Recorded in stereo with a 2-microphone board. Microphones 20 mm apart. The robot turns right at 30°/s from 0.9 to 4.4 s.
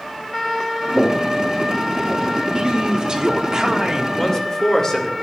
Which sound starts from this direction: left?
A man speaking, at 4.2 s.